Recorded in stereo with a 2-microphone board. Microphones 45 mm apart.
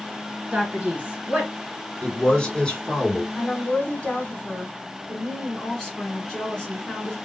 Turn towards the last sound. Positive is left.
turn(degrees=15)  # may be behind; listen again after turning